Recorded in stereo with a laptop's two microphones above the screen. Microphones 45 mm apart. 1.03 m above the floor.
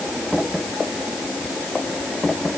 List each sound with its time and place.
Only background noise.